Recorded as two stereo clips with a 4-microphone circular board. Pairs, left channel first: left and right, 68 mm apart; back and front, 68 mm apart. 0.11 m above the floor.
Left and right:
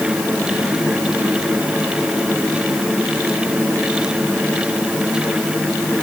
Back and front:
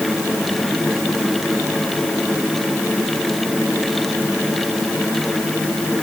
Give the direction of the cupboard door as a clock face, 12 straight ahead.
I don't hear a cupboard door.